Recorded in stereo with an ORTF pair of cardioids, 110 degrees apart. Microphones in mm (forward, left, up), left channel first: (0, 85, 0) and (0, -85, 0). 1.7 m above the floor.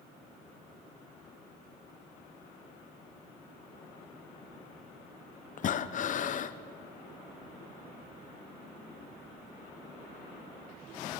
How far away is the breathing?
About 0.9 m.